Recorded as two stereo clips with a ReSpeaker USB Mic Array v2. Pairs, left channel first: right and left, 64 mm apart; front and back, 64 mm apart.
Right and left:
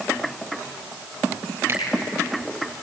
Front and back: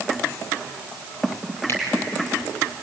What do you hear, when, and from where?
1.7 s a finger snap: 45° left, 5 m